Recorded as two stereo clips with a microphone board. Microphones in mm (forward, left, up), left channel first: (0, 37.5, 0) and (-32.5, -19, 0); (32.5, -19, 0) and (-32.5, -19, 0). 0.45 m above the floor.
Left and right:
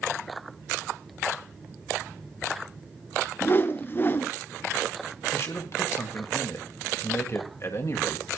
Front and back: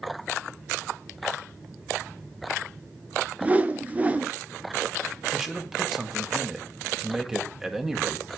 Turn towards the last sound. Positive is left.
turn(degrees=100)